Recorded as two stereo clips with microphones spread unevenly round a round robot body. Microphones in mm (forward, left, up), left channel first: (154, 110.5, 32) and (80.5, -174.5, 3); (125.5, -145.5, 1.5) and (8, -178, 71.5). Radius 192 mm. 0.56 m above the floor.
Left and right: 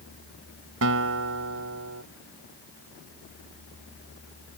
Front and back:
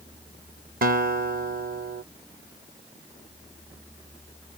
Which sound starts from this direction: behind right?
A guitar, at 0.8 s.